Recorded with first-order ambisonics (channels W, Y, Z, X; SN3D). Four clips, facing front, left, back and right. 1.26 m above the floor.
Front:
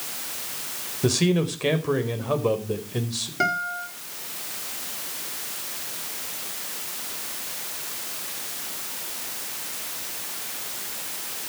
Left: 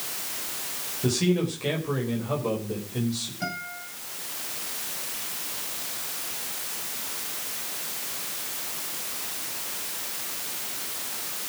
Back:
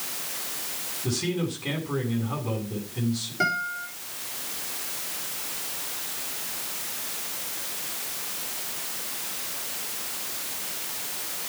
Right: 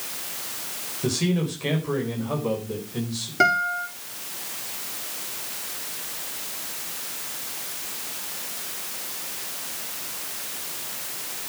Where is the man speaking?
5° right, 4.5 m.